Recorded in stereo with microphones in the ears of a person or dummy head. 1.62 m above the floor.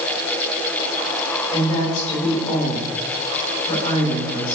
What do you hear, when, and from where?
1.5 s a woman speaking: 40° left (ahead or behind), 3.5 m